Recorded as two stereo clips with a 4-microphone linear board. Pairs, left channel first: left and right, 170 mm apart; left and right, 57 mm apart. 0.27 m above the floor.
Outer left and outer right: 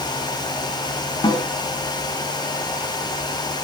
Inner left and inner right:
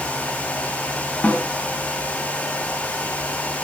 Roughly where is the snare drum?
Left.